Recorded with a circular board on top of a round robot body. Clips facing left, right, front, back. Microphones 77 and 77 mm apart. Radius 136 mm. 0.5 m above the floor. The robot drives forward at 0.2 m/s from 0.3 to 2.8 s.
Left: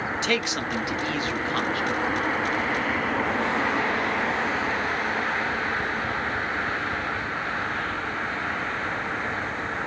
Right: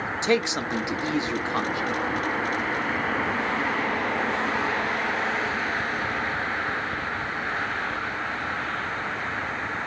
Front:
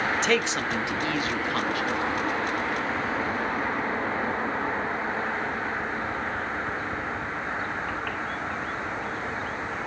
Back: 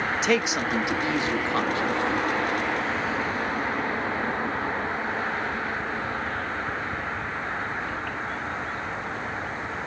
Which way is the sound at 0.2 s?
105° right.